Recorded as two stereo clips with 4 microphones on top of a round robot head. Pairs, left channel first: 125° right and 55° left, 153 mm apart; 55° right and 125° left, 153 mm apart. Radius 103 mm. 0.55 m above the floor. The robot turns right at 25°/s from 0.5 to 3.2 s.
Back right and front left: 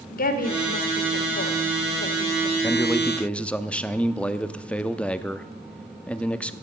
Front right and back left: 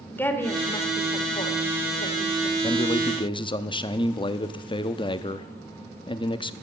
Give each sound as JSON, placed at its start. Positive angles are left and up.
{"t": 0.1, "sound": "a woman speaking", "azimuth_deg": -130, "distance_m": 1.9}
{"t": 2.6, "sound": "a man speaking", "azimuth_deg": -65, "distance_m": 0.7}